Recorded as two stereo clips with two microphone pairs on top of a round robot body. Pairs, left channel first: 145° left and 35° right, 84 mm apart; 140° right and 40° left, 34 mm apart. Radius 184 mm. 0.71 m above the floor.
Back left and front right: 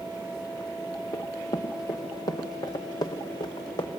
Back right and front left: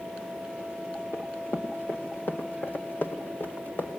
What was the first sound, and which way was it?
Running footsteps, 165° right.